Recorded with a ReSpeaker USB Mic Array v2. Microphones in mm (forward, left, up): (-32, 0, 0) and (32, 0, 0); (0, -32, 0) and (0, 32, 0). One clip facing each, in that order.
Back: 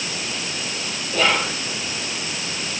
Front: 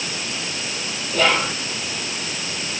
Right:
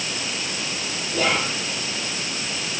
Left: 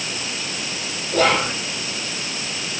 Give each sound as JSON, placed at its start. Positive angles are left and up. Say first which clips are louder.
{"t": 1.1, "sound": "whispering", "louder": "front 1 dB, left 5 dB", "azimuth_deg": 90, "distance_m": 4.0}